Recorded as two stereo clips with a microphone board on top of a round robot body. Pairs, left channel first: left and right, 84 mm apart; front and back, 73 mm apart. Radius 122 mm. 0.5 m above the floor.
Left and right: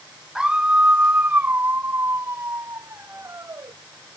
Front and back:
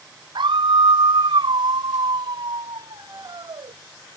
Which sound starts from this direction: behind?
A scream, at 0.3 s.